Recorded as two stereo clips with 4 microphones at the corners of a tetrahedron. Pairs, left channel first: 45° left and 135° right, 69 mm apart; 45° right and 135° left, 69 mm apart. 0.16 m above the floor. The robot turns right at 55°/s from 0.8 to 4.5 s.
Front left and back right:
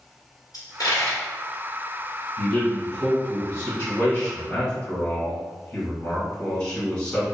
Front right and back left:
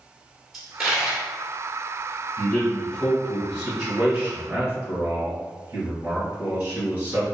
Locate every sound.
0.5 s a dropped coin: 50° left, 1.4 m; by 1.3 s 75° left, 1.4 m
2.4 s a man speaking: straight ahead, 1.8 m; by 7.3 s 115° left, 1.8 m